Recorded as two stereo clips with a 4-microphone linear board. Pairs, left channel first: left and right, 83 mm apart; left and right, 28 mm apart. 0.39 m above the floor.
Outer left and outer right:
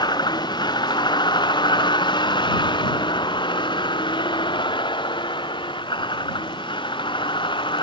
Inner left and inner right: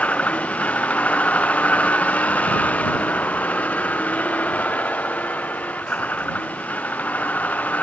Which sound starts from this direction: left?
A vehicle, at 0.0 s.